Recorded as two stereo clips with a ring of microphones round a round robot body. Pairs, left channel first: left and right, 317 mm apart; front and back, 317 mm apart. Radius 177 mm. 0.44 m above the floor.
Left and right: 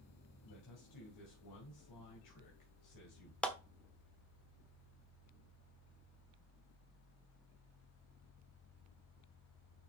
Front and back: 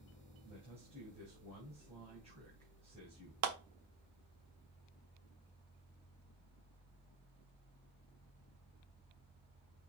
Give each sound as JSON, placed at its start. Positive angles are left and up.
{"t": 0.4, "sound": "a man speaking", "azimuth_deg": 105, "distance_m": 2.5}
{"t": 3.4, "sound": "a clap", "azimuth_deg": 175, "distance_m": 1.2}